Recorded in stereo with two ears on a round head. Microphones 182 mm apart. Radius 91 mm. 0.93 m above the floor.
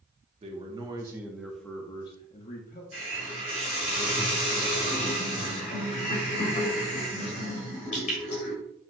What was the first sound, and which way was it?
A man speaking, 30° right (ahead or behind).